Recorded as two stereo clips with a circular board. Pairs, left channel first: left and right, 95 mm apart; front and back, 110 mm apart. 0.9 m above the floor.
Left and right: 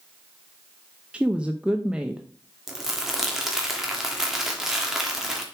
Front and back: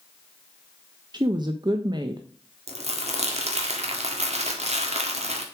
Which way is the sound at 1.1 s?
160° right.